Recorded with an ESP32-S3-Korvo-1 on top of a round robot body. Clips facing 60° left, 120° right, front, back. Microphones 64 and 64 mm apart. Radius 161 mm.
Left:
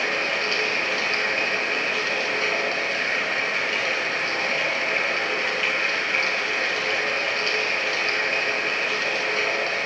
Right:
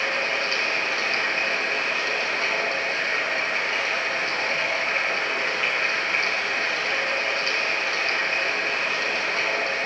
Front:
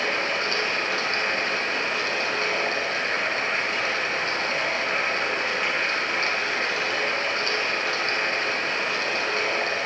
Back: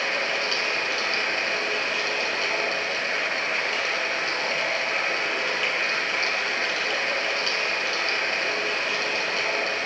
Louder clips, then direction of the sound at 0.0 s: Even, front 1 dB; 55° right.